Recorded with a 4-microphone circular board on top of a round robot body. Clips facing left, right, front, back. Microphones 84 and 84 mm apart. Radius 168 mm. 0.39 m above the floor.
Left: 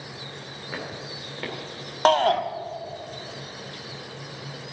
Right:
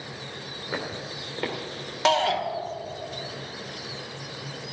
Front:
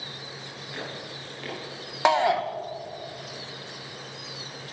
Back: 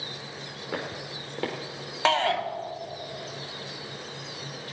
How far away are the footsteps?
About 2.5 m.